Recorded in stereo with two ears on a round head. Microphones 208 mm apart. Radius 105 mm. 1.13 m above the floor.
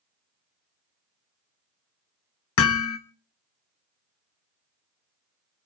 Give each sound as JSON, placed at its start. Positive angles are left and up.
{"t": 2.6, "sound": "hammering", "side_deg": 60, "distance_m": 1.4}